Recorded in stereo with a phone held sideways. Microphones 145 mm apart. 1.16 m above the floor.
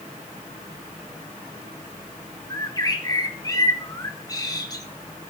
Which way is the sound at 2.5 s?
25° left (ahead or behind).